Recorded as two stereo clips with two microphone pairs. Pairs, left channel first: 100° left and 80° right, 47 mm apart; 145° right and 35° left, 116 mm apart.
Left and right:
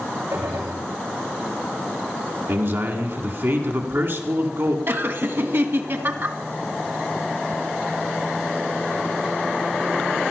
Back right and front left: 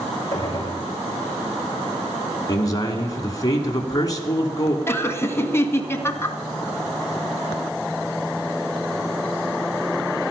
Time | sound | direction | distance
0.3 | a gunshot | 85° right | 6 m
2.5 | a man speaking | 90° right | 2.5 m
4.9 | laughter | 80° right | 1.8 m